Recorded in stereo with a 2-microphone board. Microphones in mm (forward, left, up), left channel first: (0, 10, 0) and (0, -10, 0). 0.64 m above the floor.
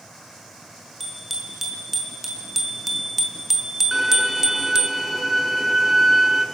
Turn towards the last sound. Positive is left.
turn(degrees=-10)  # may be behind; listen again after turning